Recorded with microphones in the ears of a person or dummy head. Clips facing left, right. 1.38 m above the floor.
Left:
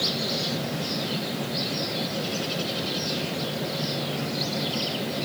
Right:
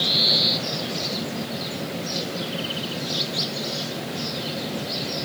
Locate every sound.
Only background noise.